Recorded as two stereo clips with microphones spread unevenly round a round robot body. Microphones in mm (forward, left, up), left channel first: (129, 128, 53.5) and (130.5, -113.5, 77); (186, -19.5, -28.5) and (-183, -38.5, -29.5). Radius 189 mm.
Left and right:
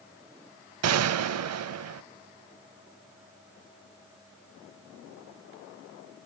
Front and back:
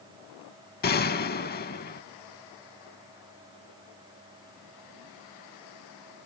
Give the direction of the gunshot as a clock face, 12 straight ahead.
2 o'clock.